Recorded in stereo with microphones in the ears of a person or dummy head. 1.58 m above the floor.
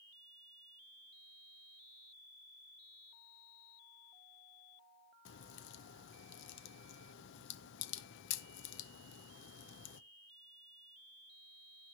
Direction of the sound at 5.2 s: 70° left (ahead or behind).